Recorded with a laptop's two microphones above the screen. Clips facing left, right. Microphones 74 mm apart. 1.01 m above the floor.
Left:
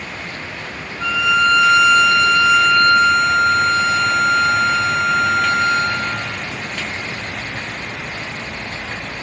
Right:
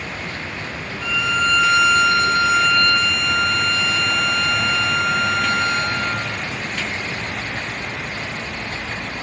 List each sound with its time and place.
1.0 s a violin: 85° left, 5 m